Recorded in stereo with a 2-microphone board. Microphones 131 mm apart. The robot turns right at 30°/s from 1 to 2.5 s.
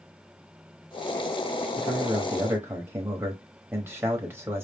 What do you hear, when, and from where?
1.8 s a man speaking: 10° right (ahead or behind), 1.0 m; by 4.6 s 20° right (ahead or behind), 1.0 m